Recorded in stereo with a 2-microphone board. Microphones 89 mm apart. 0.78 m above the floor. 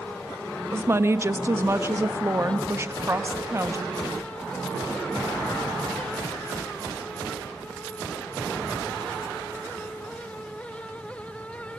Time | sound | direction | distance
0.7 | a woman speaking | 30° right (ahead or behind) | 0.9 m